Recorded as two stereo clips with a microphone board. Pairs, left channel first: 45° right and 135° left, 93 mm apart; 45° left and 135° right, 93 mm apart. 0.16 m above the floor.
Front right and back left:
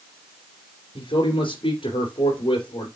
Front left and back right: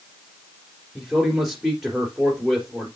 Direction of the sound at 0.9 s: 50° right.